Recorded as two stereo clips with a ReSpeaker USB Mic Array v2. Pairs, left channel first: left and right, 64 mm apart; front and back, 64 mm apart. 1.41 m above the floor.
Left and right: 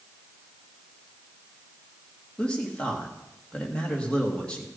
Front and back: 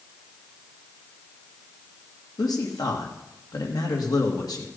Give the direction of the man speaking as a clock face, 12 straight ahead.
11 o'clock.